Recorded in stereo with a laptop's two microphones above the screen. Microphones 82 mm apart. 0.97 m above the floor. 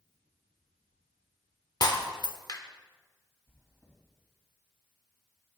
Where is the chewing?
35° left (ahead or behind), 3 m.